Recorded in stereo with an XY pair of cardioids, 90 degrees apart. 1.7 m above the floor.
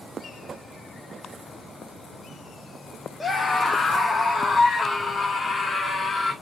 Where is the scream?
20° left, 1.3 m; by 6.3 s 25° left, 3 m.